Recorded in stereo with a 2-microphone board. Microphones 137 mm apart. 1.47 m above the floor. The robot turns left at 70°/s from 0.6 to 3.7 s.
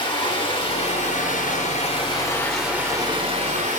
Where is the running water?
140° left, 3.5 m; by 3.8 s 75° right, 3.5 m.